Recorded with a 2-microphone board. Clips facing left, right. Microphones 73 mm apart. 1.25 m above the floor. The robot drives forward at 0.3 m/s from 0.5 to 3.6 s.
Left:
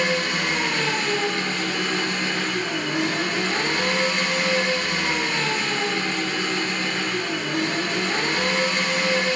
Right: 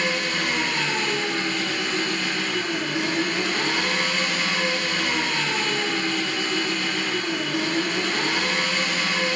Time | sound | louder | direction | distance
0.0 | an engine running | left 2 dB | 60° left (ahead or behind) | 1.2 m